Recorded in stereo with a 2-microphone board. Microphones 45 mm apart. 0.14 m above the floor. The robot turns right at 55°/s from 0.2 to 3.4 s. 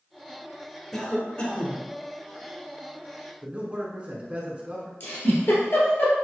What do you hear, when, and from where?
0.9 s a cough: 10° left, 1.2 m; by 1.9 s 60° left, 1.2 m
3.4 s a man speaking: 30° right (ahead or behind), 1.2 m
5.0 s a giggle: 55° left (ahead or behind), 1.7 m